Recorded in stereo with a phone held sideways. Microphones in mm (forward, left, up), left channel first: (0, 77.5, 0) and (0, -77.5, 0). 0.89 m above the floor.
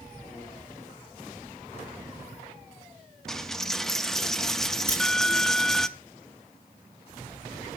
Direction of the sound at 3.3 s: Centre (ahead or behind).